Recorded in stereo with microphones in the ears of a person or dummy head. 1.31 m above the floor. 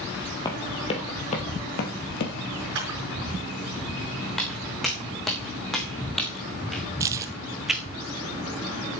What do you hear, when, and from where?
0.5 s running footsteps: 20° left (ahead or behind), 2.5 m; by 2.6 s 55° left (ahead or behind), 2.5 m
2.8 s a camera shutter: 65° right (ahead or behind), 5 m
4.3 s footsteps: 5° left (ahead or behind), 4.5 m; by 7.8 s 5° right (ahead or behind), 1.5 m
7.0 s keys jangling: 20° right (ahead or behind), 0.6 m